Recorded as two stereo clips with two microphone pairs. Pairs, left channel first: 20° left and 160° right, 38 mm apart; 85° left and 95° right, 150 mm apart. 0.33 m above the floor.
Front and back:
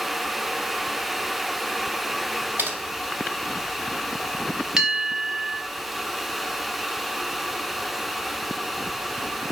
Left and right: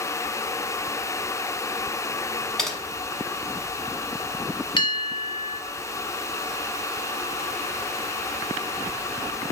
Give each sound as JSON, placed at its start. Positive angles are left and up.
{"t": 2.6, "sound": "typing on a keyboard", "azimuth_deg": 170, "distance_m": 0.8}
{"t": 4.8, "sound": "a bell", "azimuth_deg": 135, "distance_m": 0.6}